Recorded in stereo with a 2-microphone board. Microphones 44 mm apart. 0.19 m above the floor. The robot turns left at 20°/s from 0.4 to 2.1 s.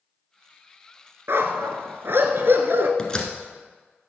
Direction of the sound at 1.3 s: 70° right (ahead or behind).